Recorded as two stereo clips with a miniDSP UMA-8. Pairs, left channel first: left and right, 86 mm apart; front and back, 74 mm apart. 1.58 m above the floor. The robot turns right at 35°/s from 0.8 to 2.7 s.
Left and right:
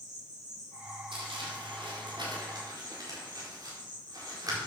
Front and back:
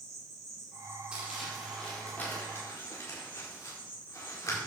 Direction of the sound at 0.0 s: 135° right.